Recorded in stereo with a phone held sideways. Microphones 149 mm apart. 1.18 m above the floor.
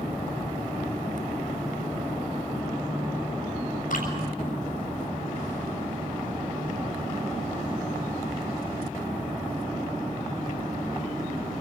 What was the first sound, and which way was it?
Dripping, 70° left (ahead or behind).